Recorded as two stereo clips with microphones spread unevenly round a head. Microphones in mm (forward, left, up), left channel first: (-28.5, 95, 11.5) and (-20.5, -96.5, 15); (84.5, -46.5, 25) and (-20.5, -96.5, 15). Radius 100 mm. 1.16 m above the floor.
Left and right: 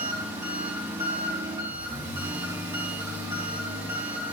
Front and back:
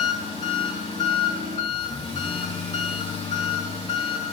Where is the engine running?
10° right, 3 m.